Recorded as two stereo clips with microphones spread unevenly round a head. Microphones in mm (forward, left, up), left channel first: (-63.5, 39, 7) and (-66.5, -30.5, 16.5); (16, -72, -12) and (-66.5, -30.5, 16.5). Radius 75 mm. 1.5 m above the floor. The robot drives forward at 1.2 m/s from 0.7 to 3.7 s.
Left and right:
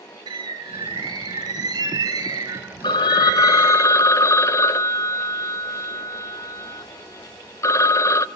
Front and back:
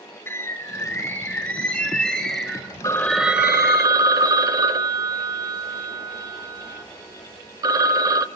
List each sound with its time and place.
0.3 s a bird: 95° right, 4.5 m; by 3.8 s 135° right, 6.5 m
2.8 s a phone ringing: 50° left, 1.0 m; by 8.2 s 130° left, 1.0 m